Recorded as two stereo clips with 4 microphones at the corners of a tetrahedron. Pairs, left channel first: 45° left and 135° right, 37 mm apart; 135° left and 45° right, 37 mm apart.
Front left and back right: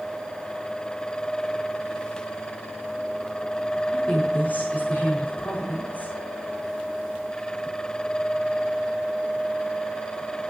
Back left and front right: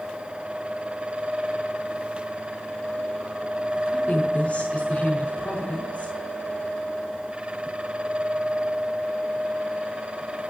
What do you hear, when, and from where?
3.9 s a woman speaking: 80° left, 5 m